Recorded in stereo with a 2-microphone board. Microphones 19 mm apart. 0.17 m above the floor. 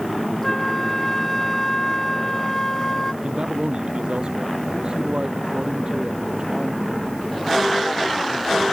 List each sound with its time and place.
0.4 s a flute: 25° left (ahead or behind)
3.2 s a man speaking: 60° right (ahead or behind)